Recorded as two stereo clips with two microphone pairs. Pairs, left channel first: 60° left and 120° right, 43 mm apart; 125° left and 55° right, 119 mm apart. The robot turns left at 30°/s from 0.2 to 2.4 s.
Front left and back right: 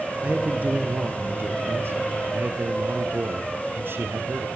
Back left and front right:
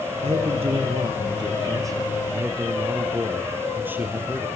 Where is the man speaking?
65° right, 2.5 m; by 4.5 s 130° right, 2.5 m.